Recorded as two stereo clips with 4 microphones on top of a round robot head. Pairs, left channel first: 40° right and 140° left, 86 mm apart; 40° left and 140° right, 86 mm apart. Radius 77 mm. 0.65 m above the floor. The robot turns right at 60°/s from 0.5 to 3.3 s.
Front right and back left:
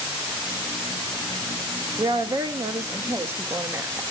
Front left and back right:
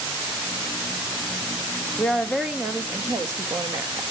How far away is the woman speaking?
About 0.6 m.